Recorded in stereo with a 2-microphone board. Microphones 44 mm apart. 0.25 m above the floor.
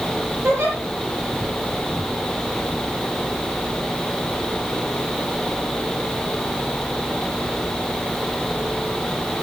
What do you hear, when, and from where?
0.4 s a giggle: 75° right (ahead or behind), 9 m